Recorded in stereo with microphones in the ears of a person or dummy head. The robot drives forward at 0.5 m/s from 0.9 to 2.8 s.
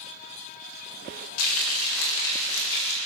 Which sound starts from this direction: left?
Frying, at 1.4 s.